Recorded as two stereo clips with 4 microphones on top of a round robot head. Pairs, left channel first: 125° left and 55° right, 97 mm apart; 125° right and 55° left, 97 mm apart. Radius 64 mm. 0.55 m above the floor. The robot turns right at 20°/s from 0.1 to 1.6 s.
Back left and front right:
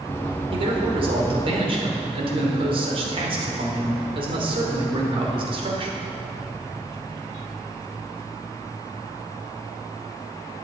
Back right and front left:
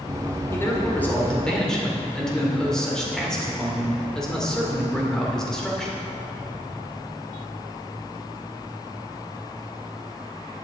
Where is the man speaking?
65° right, 2.5 m; by 6.0 s 40° right, 2.5 m.